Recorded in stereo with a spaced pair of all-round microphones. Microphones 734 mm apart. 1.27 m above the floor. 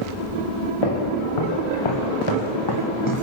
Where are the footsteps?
45° left (ahead or behind), 4.5 m; by 3.2 s 25° left (ahead or behind), 2.5 m.